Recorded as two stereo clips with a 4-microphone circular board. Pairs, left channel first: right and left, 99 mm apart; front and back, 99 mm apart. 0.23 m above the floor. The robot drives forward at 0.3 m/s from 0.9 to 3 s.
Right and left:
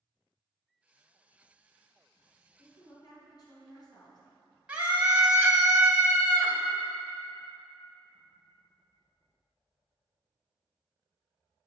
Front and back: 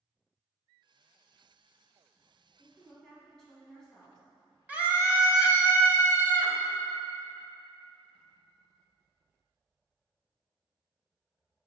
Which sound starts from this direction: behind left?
A scream, at 4.7 s.